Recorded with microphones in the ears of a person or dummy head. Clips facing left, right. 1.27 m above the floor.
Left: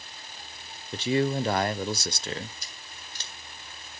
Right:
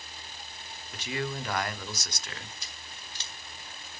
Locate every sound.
0.9 s a man speaking: 30° left (ahead or behind), 0.6 m
2.6 s scissors: 45° left (ahead or behind), 2 m